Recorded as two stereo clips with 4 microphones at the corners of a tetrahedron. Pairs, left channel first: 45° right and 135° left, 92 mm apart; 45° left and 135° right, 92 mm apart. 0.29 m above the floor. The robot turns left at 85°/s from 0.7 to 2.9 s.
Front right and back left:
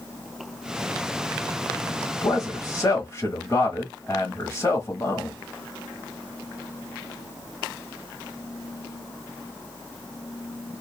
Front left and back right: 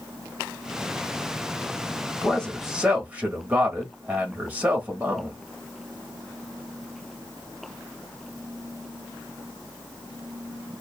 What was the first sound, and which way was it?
A man speaking, 15° right.